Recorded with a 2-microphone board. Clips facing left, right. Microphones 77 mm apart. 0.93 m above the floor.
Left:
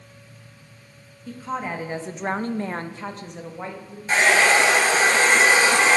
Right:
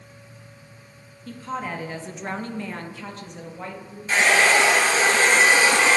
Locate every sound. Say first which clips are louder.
1.3 s a woman speaking: left 1 dB; 10° left (ahead or behind), 1.2 m; by 4.0 s 15° left (ahead or behind), 1.4 m
4.1 s a hair dryer: left 1 dB; 35° left (ahead or behind), 4 m